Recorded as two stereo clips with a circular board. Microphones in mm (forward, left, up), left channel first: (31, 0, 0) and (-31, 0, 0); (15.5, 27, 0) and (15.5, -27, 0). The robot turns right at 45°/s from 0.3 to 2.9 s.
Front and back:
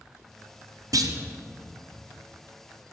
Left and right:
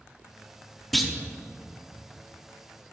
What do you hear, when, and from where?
0.9 s a clunk: straight behind, 0.8 m; by 1.1 s 170° right, 0.8 m